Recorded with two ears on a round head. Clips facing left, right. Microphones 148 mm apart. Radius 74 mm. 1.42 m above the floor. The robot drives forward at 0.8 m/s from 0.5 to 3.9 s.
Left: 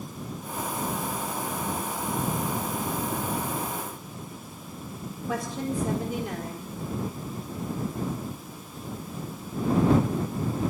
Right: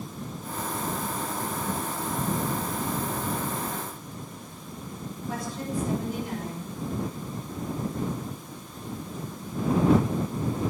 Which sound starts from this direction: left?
A woman speaking, at 5.3 s.